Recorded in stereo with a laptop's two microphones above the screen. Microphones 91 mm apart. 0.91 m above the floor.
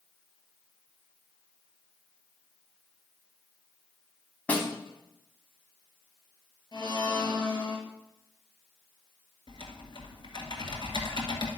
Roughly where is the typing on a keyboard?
Left.